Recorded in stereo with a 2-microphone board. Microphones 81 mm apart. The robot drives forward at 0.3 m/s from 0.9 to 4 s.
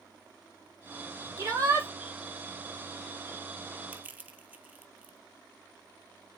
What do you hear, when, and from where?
1.4 s a shout: 35° right (ahead or behind), 5 m; by 1.9 s 40° right (ahead or behind), 4.5 m
3.9 s crushing: 20° right (ahead or behind), 1.5 m